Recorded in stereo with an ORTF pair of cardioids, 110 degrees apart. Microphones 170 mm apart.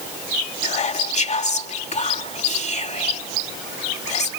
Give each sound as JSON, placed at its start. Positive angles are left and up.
{"t": 0.6, "sound": "whispering", "azimuth_deg": 40}